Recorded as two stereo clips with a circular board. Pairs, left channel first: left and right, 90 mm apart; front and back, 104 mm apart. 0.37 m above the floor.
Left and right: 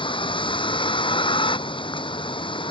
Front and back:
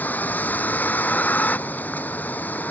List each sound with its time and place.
0.0 s a vehicle: 70° left